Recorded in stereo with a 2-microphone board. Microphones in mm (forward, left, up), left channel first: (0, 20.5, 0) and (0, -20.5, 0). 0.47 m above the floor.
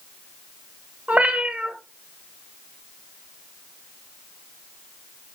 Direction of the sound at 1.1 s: 35° right (ahead or behind).